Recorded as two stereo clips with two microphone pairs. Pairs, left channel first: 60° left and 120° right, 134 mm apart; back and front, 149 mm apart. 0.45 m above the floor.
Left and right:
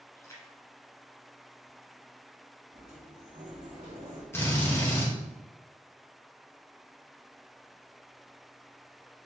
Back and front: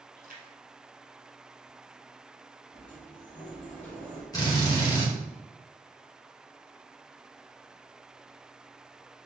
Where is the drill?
125° left, 1.5 m.